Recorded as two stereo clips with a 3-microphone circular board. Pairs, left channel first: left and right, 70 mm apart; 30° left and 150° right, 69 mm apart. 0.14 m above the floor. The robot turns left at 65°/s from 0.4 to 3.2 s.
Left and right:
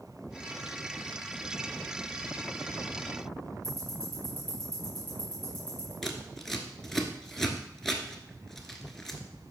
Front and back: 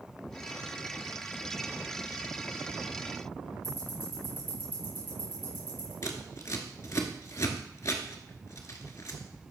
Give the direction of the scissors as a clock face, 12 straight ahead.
12 o'clock.